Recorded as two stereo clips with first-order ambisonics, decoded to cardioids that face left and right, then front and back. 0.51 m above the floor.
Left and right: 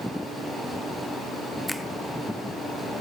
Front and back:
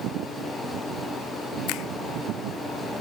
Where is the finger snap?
Straight ahead, 1.4 m.